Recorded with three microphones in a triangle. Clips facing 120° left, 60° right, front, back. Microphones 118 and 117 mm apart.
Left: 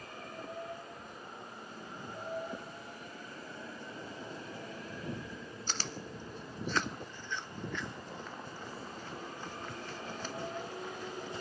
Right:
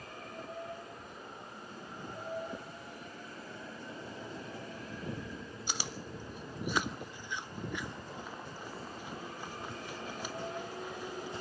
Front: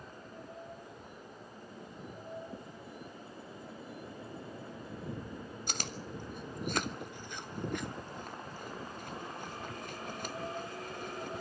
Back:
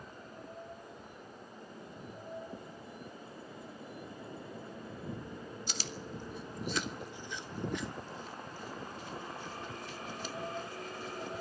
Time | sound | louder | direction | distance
5.7 | chewing | even, front 3 dB | 15° left | 1.0 m